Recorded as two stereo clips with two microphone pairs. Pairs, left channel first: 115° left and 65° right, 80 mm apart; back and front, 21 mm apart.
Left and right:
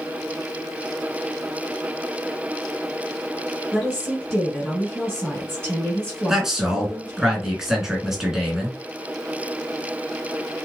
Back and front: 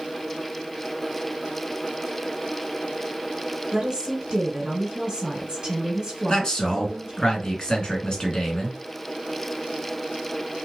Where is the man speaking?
145° right, 1.4 m.